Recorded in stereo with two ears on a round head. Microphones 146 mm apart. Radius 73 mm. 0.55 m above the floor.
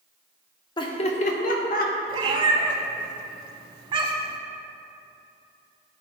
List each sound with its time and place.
0.8 s laughter: 25° left (ahead or behind), 0.7 m; by 1.9 s 60° left (ahead or behind), 1.2 m
2.1 s a cat meowing: 30° right (ahead or behind), 0.8 m